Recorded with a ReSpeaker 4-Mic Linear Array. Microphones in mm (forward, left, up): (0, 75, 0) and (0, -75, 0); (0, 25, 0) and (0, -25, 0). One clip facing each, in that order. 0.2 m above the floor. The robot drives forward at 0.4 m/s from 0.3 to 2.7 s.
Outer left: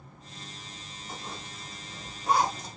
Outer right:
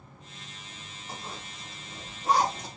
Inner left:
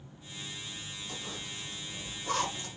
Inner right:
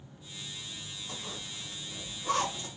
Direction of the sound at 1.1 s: 35° right (ahead or behind).